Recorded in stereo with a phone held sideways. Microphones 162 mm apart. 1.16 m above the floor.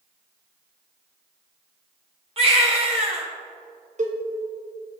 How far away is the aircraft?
No aircraft in this recording.